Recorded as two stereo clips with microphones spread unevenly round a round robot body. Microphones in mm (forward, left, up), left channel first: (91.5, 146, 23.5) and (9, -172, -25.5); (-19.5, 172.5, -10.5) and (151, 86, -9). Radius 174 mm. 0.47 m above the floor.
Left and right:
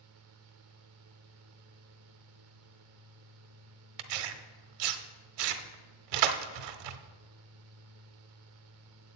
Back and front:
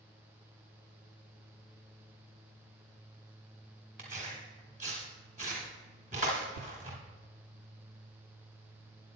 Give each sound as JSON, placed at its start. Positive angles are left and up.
{"t": 4.0, "sound": "tearing paper", "azimuth_deg": -100, "distance_m": 0.7}